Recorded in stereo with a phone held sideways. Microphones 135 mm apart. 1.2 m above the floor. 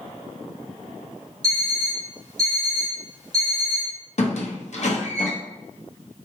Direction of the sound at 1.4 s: 30° right (ahead or behind).